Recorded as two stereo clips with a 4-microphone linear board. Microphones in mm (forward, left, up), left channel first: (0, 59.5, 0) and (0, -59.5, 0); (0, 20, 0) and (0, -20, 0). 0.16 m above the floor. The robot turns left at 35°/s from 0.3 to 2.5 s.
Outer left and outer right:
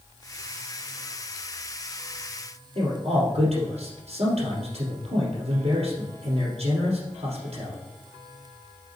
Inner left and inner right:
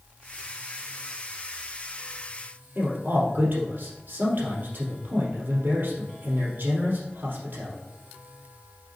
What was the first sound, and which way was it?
A man speaking, 60° right (ahead or behind).